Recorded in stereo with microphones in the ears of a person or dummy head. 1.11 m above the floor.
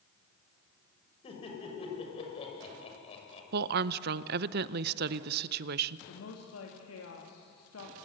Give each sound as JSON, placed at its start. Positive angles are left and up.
{"t": 1.2, "sound": "laughter", "side_deg": 35, "distance_m": 6.5}
{"t": 3.5, "sound": "a woman speaking", "side_deg": -50, "distance_m": 0.5}
{"t": 6.1, "sound": "a woman speaking", "side_deg": 75, "distance_m": 2.5}